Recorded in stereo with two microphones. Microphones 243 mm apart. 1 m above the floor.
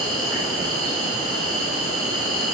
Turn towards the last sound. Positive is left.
turn(degrees=-70)  # may be behind; listen again after turning